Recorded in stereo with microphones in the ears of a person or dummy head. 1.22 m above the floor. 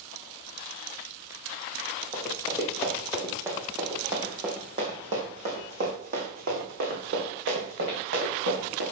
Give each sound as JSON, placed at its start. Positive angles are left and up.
{"t": 2.1, "sound": "running footsteps", "side_deg": 10, "distance_m": 3.5}